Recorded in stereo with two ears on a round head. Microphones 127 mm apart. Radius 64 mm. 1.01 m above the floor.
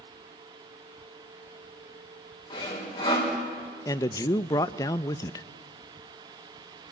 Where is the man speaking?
25° left (ahead or behind), 0.6 m.